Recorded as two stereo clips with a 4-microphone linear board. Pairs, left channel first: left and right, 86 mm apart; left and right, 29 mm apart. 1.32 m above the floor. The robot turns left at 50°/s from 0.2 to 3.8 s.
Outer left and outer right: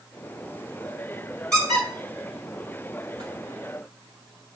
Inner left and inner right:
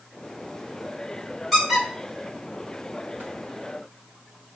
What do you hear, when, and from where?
1.5 s a squeak: 10° left (ahead or behind), 2.5 m; by 3.2 s 70° right (ahead or behind), 2.5 m